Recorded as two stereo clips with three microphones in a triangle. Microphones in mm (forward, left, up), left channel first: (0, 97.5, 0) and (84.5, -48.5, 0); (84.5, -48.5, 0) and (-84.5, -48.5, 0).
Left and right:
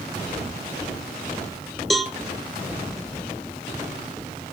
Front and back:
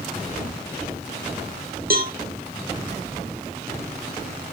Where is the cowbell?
150° right, 1.6 m.